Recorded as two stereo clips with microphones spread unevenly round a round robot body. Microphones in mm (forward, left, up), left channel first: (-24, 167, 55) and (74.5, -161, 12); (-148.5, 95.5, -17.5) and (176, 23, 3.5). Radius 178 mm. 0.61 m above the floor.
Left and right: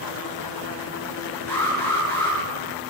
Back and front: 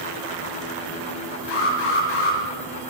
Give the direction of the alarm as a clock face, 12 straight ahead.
6 o'clock.